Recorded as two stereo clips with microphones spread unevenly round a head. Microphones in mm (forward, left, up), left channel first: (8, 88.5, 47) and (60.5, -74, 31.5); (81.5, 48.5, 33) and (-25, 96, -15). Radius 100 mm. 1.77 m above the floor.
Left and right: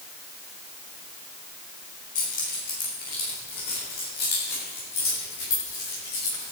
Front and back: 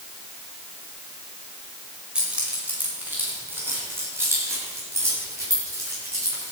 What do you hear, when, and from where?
2.1 s keys jangling: 70° left, 5.5 m; by 6.5 s 90° left, 11 m